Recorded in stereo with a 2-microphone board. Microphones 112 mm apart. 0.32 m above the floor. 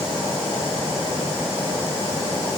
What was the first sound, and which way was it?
Only background noise.